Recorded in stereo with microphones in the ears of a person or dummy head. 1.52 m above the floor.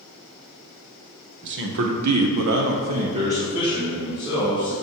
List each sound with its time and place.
1.4 s a man speaking: 55° right (ahead or behind), 0.8 m; by 4.8 s 5° right (ahead or behind), 1.9 m